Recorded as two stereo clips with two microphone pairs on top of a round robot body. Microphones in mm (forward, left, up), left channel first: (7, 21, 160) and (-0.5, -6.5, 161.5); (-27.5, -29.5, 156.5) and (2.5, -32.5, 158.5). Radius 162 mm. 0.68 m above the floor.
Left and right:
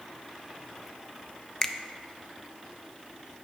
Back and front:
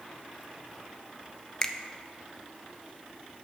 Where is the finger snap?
125° left, 0.7 m.